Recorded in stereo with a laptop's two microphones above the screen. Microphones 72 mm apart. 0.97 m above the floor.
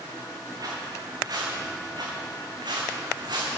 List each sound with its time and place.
0.6 s footsteps: 55° right (ahead or behind), 4 m; by 3.6 s 70° right (ahead or behind), 3.5 m